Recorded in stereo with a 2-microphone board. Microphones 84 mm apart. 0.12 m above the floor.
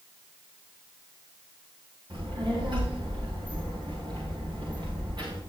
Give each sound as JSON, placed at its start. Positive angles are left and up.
{"t": 2.1, "sound": "a child speaking", "side_deg": -60, "distance_m": 9.0}